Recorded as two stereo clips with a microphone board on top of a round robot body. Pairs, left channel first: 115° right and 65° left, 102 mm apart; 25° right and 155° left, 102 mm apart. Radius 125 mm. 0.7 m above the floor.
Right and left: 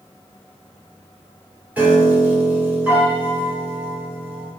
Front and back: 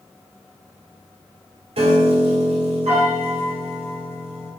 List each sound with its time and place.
1.8 s a piano: 145° left, 1.8 m